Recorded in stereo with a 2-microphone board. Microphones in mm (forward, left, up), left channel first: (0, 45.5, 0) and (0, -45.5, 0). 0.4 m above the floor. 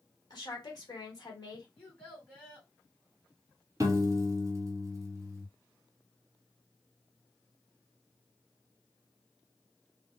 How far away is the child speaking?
About 1.9 m.